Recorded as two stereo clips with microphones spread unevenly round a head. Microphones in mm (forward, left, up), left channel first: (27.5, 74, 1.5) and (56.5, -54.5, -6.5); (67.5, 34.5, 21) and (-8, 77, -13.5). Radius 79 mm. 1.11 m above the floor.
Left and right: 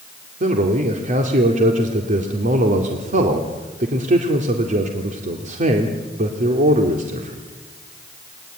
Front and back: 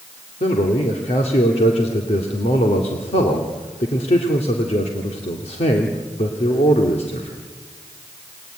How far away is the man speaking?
About 2.5 m.